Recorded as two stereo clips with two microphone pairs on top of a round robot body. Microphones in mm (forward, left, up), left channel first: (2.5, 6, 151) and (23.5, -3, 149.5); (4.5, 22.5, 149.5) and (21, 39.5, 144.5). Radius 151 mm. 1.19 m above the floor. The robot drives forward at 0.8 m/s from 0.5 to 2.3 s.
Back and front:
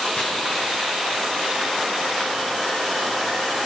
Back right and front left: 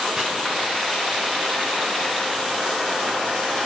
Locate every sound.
0.2 s chopping: 130° left, 4.5 m